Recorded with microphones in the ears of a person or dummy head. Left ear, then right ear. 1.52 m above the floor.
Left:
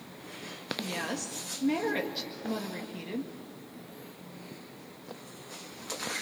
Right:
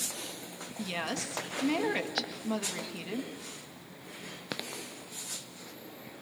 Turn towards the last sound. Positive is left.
turn(degrees=-20)  # may be behind; listen again after turning